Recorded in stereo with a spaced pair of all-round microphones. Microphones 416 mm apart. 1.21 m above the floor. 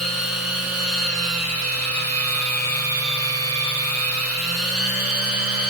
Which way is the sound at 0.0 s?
35° right (ahead or behind).